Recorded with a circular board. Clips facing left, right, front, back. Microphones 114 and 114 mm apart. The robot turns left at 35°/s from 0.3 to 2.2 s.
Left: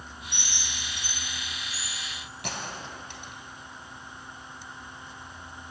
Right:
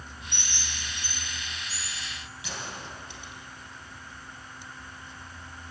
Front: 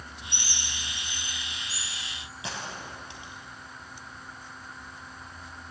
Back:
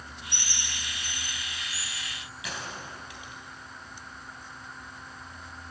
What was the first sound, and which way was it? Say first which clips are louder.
A bird: even, even; 40° left.